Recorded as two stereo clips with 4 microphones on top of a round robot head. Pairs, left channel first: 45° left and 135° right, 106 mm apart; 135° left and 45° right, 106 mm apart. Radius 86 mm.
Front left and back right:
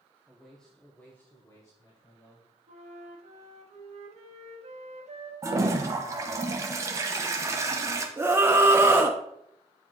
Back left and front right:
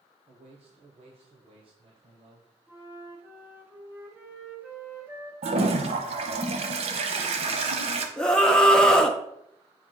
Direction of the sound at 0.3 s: 50° right.